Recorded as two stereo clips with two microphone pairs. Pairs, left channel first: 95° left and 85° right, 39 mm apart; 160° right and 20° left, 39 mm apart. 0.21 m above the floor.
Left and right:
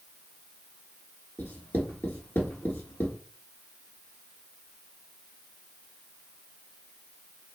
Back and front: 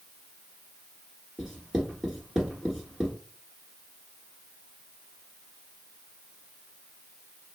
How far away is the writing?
About 1.3 m.